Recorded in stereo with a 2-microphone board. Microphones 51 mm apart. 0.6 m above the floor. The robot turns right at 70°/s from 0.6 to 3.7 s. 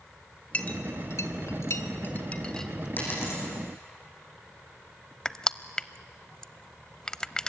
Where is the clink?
25° left (ahead or behind), 1.6 m; by 2.9 s 5° right (ahead or behind), 1.6 m.